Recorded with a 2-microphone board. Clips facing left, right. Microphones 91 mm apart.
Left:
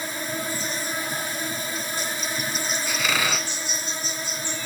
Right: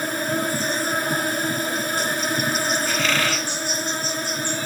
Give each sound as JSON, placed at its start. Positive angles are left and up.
{"t": 0.0, "sound": "an insect", "side_deg": -60, "distance_m": 1.8}
{"t": 2.9, "sound": "a squeak", "side_deg": 10, "distance_m": 0.8}